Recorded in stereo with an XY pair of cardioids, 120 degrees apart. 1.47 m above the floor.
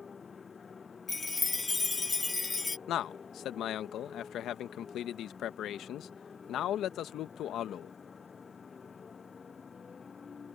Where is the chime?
20° left.